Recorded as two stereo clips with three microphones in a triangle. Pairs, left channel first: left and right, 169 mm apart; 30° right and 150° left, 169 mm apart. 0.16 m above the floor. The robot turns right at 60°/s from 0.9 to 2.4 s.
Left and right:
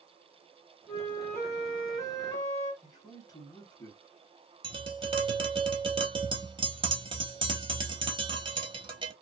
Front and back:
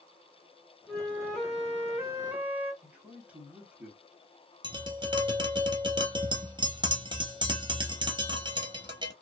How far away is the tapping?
About 0.8 m.